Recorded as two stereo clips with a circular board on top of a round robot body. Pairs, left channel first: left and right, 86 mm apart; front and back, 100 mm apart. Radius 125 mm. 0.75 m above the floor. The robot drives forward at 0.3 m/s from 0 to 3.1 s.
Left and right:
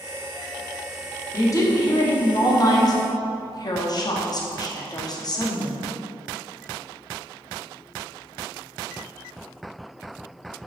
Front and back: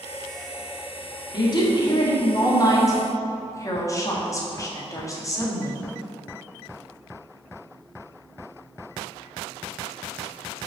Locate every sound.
1.3 s a woman speaking: 40° left, 2 m; by 5.8 s 55° left, 1.7 m